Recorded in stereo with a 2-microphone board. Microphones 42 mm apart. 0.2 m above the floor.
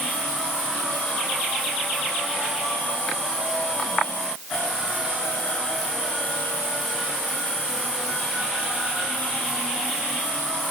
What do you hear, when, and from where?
Only background noise.